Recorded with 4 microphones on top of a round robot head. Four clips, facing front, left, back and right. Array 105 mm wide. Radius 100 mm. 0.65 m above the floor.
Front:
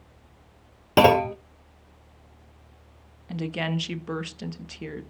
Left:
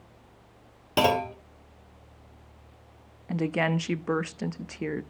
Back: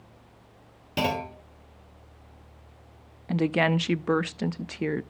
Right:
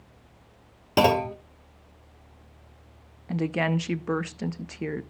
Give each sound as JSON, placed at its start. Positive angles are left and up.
{"t": 1.0, "sound": "a clunk", "azimuth_deg": -15, "distance_m": 0.6}
{"t": 3.3, "sound": "a woman speaking", "azimuth_deg": 170, "distance_m": 0.6}